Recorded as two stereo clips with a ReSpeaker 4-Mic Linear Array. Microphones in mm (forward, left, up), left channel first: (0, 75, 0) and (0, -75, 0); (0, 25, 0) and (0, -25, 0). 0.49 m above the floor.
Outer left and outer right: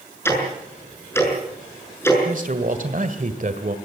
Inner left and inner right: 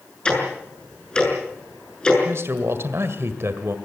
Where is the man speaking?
60° right (ahead or behind), 1.7 m.